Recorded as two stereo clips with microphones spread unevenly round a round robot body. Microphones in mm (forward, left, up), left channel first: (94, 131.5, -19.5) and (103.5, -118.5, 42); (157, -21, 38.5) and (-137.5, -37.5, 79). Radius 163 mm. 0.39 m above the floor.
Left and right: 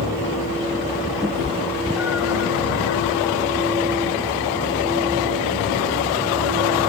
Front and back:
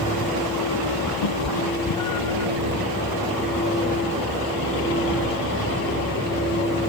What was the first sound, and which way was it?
A cat meowing, 5° right.